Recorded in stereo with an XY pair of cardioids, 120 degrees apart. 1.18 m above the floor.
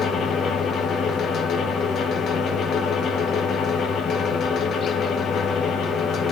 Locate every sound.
0.0 s a fan: 55° left, 1.1 m